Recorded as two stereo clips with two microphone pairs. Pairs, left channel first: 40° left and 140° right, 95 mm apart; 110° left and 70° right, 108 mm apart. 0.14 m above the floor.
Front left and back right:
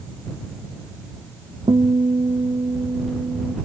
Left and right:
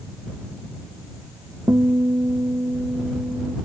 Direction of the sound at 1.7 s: 125° right.